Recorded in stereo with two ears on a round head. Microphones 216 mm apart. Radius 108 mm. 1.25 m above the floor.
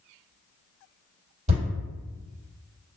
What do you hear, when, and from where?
1.5 s a thud: 30° right (ahead or behind), 1.8 m